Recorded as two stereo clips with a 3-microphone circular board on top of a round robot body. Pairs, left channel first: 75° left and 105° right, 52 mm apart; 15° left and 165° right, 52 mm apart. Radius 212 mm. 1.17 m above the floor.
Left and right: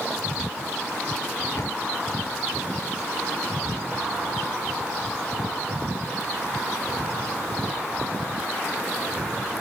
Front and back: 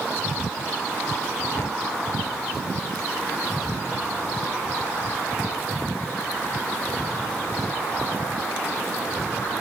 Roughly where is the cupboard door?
Left.